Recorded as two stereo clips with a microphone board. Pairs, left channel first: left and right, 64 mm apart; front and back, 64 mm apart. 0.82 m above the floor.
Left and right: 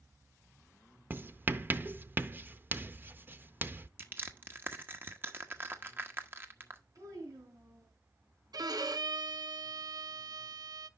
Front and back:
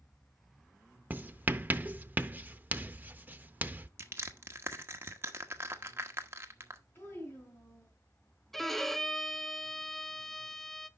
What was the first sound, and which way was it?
Writing, 135° right.